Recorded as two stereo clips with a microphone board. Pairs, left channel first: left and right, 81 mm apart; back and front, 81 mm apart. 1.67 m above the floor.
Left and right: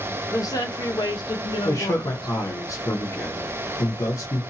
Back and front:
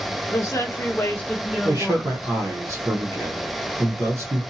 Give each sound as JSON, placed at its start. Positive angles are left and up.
{"t": 0.3, "sound": "a woman speaking", "azimuth_deg": 135, "distance_m": 1.1}
{"t": 1.6, "sound": "a man speaking", "azimuth_deg": 45, "distance_m": 0.9}